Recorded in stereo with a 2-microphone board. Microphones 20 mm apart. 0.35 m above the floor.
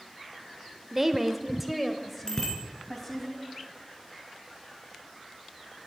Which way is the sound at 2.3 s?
25° left (ahead or behind).